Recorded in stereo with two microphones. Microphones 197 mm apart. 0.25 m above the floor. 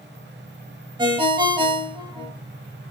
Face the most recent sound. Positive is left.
turn(degrees=-20)  # may be behind; listen again after turning